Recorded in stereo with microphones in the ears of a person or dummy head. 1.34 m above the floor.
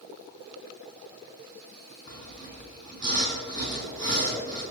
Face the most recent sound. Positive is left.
turn(degrees=25)  # may be behind; listen again after turning